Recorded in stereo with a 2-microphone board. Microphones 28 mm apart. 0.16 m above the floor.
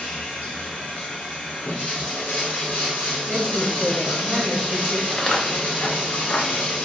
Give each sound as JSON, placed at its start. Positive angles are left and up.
{"t": 0.0, "sound": "running water", "side_deg": 65, "distance_m": 1.8}
{"t": 3.3, "sound": "a woman speaking", "side_deg": 0, "distance_m": 1.3}
{"t": 5.1, "sound": "footsteps", "side_deg": 20, "distance_m": 0.8}